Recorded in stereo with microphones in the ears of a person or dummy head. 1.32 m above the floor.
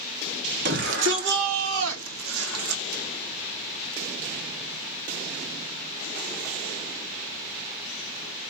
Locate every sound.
0.7 s a shout: 70° right (ahead or behind), 2 m